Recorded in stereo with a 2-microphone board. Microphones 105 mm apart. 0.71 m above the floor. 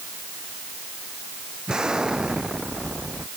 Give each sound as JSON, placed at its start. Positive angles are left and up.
{"t": 1.7, "sound": "an explosion", "side_deg": -10}